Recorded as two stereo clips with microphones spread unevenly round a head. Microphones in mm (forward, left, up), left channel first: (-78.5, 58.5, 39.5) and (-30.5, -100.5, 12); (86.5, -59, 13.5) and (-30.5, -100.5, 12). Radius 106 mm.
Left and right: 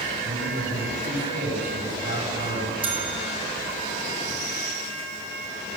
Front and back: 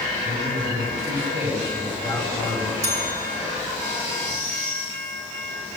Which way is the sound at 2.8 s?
130° right.